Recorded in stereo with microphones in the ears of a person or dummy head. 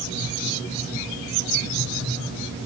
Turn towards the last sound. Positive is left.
No sound to turn to.